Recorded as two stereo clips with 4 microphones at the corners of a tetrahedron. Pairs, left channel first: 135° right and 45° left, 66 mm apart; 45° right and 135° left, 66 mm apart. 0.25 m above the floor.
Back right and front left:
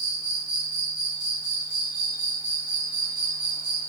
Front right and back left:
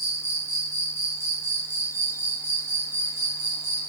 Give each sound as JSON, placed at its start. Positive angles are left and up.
{"t": 0.0, "sound": "an insect", "azimuth_deg": -20, "distance_m": 1.6}